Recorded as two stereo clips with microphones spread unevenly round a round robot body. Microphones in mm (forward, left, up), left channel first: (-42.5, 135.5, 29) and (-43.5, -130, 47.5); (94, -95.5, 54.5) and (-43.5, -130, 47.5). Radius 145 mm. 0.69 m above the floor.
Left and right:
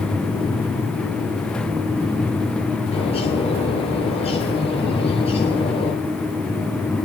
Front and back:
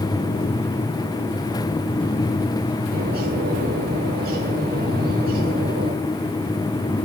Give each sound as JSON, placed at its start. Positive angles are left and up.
{"t": 2.9, "sound": "a bird", "azimuth_deg": 160, "distance_m": 9.0}